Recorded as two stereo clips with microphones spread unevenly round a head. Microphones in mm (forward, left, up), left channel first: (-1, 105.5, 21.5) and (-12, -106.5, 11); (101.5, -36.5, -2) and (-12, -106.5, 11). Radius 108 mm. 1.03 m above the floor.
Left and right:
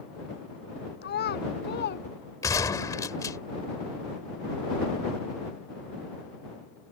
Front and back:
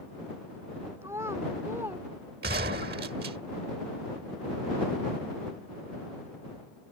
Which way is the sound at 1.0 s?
135° left.